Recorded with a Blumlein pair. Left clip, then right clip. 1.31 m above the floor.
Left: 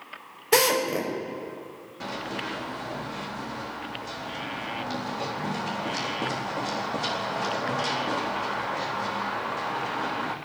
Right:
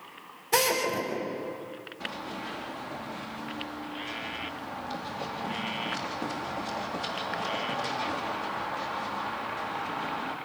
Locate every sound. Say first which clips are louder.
0.5 s a drill: left 4 dB; 60° left, 5.5 m
2.0 s running footsteps: left 5 dB; 30° left, 4 m